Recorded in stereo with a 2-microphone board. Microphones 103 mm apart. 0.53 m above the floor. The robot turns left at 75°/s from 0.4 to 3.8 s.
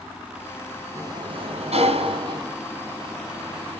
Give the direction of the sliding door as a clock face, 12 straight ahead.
1 o'clock.